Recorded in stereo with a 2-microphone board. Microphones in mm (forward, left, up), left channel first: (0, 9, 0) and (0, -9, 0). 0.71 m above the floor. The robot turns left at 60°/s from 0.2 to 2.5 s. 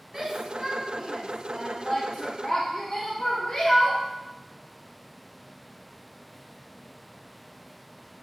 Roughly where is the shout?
Right.